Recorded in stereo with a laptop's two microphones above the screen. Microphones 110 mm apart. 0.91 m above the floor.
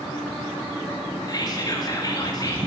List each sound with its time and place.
1.3 s whispering: 35° left (ahead or behind), 1.6 m